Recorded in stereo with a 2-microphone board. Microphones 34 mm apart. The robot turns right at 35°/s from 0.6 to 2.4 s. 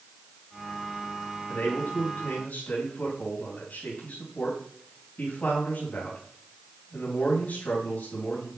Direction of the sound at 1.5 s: 90° left.